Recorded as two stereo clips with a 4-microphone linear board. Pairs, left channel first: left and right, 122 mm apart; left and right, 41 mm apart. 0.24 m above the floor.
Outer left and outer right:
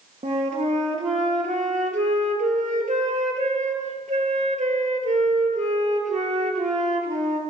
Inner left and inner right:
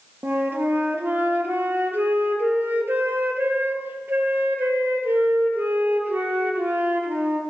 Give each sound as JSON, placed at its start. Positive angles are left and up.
{"t": 0.2, "sound": "a flute", "side_deg": -70, "distance_m": 3.0}